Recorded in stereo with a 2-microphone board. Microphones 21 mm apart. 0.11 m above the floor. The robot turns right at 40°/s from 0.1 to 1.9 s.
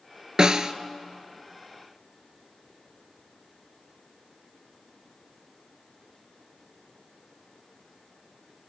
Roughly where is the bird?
No bird in this recording.